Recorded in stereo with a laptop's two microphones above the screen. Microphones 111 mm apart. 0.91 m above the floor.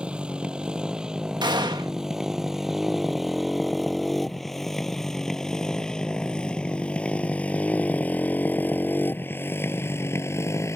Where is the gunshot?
40° right (ahead or behind).